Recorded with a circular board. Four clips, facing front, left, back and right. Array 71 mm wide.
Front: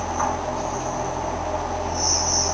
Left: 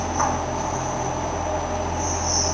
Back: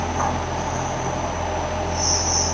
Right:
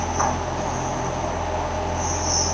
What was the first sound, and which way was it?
Only background noise.